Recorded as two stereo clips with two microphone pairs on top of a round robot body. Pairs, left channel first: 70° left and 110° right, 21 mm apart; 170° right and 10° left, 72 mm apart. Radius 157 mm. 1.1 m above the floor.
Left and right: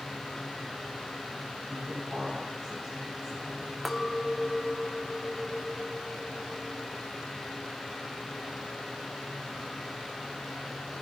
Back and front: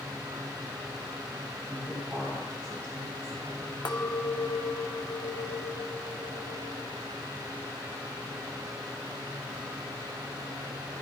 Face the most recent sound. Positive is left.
turn(degrees=175)